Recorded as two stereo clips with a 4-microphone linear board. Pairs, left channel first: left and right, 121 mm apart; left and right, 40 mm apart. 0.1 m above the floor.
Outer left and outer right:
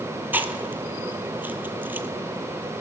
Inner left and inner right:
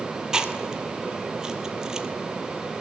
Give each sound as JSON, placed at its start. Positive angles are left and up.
{"t": 0.3, "sound": "chewing", "side_deg": -15, "distance_m": 0.6}